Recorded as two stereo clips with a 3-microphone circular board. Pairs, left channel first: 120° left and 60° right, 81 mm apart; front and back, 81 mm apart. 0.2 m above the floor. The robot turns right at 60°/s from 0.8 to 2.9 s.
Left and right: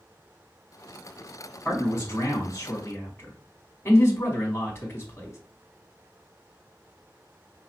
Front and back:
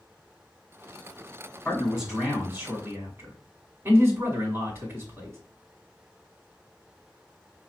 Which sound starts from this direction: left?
A man speaking, at 1.6 s.